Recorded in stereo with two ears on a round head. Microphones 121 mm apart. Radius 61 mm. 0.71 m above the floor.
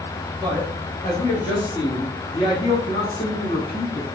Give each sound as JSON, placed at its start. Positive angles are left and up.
{"t": 0.4, "sound": "a man speaking", "side_deg": 10, "distance_m": 0.8}